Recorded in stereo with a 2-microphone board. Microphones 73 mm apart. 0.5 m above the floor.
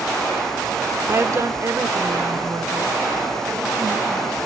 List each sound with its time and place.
1.1 s a woman speaking: 35° right (ahead or behind), 1.0 m; by 4.4 s 55° right (ahead or behind), 4 m